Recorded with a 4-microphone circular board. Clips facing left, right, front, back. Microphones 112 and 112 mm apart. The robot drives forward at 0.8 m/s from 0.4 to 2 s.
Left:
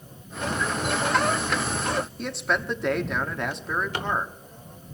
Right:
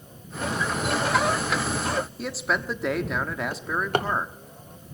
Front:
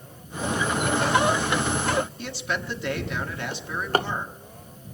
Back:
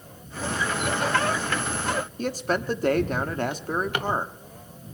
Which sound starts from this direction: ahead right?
A drawer, at 3.5 s.